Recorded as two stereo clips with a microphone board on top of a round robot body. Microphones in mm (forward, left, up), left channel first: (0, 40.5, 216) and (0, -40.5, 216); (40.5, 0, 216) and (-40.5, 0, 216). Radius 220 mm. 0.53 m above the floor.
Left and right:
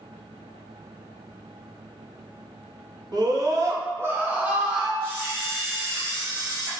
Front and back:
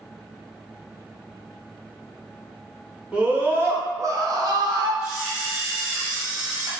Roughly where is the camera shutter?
Left.